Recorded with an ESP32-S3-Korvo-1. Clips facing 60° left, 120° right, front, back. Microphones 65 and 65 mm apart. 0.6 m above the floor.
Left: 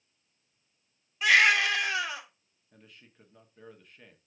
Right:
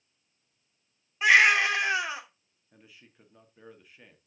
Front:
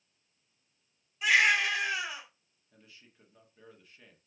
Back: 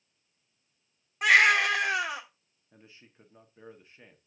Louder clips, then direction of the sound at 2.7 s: Even, back 3 dB; 160° left.